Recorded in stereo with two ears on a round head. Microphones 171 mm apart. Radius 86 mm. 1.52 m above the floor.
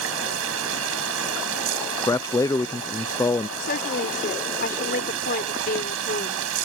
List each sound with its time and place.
0.0 s running water: 85° right
2.1 s a man speaking: 15° left (ahead or behind)
3.6 s a woman speaking: 55° left (ahead or behind)